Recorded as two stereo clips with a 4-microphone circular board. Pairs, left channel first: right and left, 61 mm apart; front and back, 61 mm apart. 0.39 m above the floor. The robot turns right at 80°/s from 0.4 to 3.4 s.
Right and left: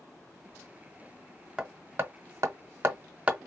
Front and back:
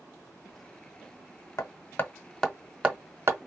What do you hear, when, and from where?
1.6 s hammering: 15° left, 0.8 m; by 3.5 s 160° left, 0.8 m